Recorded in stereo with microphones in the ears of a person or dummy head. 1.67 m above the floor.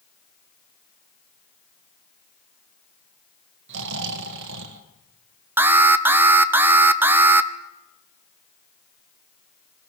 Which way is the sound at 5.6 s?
5° right (ahead or behind).